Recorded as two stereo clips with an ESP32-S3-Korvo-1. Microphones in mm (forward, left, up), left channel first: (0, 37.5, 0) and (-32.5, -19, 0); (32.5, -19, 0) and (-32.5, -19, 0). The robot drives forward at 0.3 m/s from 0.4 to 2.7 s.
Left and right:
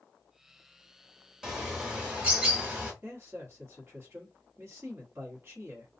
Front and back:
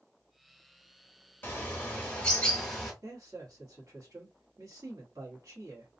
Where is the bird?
40° right, 1.1 m; by 2.9 s 70° right, 1.0 m.